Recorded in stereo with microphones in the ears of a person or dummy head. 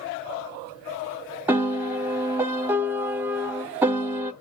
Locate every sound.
1.5 s a piano: 10° right (ahead or behind), 0.5 m